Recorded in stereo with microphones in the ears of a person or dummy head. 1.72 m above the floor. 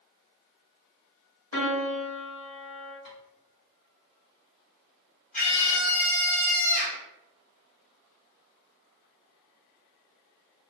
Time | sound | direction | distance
1.5 | a piano | 75° left (ahead or behind) | 0.8 m
3.0 | tapping | 60° left (ahead or behind) | 1.3 m
5.3 | a scream | 40° left (ahead or behind) | 1.6 m